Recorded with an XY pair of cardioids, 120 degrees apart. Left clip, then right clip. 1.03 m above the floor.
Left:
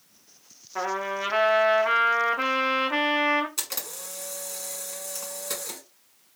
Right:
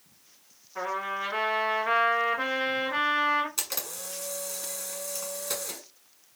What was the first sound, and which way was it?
A trumpet, 60° left.